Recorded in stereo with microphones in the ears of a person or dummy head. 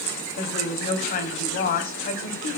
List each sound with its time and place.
0.4 s a woman speaking: 45° left (ahead or behind), 3.5 m